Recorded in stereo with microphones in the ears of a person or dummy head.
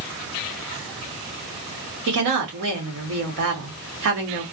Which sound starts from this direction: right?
A woman speaking, at 2.1 s.